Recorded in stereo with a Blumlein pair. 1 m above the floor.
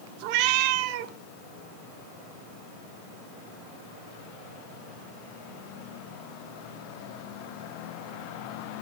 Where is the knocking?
No knocking in this recording.